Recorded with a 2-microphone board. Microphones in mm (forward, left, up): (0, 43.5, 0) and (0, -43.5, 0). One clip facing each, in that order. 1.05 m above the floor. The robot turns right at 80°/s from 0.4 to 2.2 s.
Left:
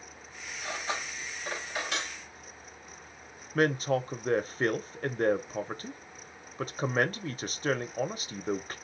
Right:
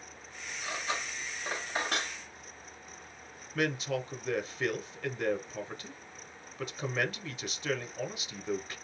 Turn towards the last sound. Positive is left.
turn(degrees=45)  # may be behind; listen again after turning